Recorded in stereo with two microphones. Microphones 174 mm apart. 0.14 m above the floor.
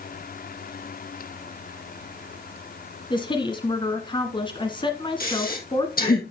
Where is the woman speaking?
25° left (ahead or behind), 1.5 m.